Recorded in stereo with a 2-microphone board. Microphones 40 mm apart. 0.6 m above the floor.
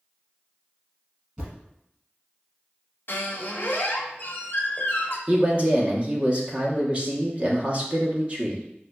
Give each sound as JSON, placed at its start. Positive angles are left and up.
{"t": 1.4, "sound": "a thud", "side_deg": -35, "distance_m": 1.8}
{"t": 3.1, "sound": "a squeak", "side_deg": 60, "distance_m": 0.7}
{"t": 5.3, "sound": "a man speaking", "side_deg": -30, "distance_m": 0.7}